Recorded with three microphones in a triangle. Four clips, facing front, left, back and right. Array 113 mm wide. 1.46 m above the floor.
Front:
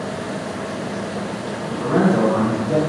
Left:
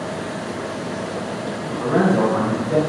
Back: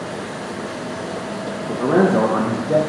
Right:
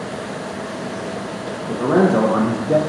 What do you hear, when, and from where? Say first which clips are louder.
1.7 s a man speaking: right 3 dB, back 2 dB; 145° right, 1.2 m; by 2.8 s 100° right, 1.0 m